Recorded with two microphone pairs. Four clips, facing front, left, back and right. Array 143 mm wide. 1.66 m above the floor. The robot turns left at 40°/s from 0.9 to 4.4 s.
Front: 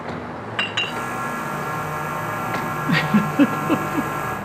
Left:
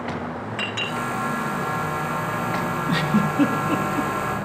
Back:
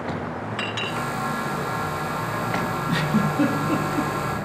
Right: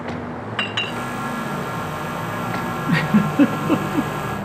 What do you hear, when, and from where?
0.6 s a clink: 65° right, 4 m; by 1.0 s 70° right, 4 m
2.9 s a giggle: 25° right, 0.8 m; by 4.1 s 75° right, 0.8 m